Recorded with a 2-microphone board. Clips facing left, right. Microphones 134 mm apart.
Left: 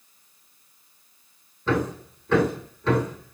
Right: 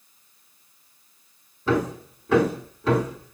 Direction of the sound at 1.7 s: 10° right (ahead or behind).